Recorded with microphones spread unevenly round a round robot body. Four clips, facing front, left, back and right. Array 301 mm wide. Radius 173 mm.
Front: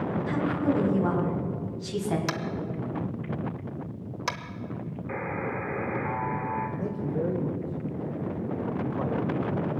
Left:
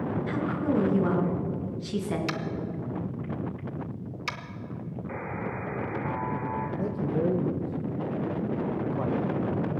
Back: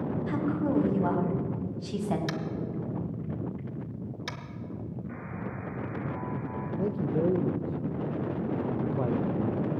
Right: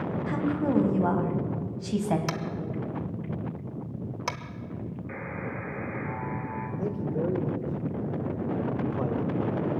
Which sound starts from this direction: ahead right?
Tapping, at 2.3 s.